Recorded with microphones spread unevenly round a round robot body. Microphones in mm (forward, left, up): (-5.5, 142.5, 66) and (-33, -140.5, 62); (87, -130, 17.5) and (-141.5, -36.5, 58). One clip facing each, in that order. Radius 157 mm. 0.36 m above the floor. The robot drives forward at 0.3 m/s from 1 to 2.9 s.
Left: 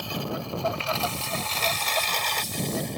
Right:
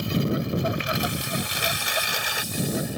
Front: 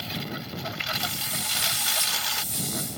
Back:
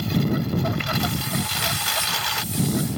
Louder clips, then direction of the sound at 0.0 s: Right 7 dB, back 13 dB; 165° right.